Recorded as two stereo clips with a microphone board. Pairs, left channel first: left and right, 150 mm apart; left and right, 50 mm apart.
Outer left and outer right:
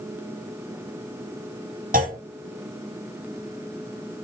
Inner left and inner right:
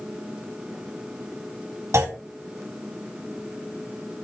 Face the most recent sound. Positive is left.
turn(degrees=-80)